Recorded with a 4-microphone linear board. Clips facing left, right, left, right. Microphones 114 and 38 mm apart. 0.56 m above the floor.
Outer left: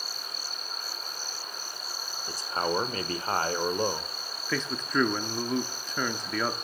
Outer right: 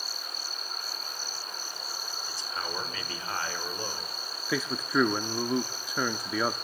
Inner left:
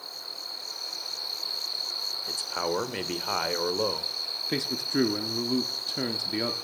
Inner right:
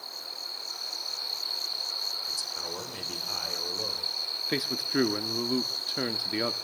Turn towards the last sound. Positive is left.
turn(degrees=-10)  # may be behind; listen again after turning